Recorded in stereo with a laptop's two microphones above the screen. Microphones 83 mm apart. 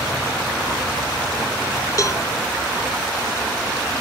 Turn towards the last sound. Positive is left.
turn(degrees=45)  # may be behind; listen again after turning